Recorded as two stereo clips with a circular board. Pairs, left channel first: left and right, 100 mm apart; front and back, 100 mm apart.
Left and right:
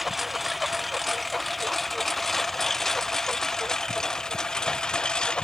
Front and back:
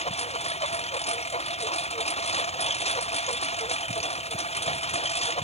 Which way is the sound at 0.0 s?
Straight ahead.